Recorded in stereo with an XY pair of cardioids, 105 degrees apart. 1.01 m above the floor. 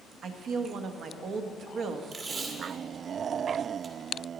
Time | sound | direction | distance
0.2 | a woman speaking | 65° right | 1.2 m
2.1 | tape being pulled | 50° right | 1.8 m